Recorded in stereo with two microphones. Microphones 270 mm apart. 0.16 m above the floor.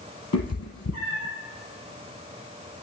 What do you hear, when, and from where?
0.3 s a cat meowing: 60° left (ahead or behind), 1.4 m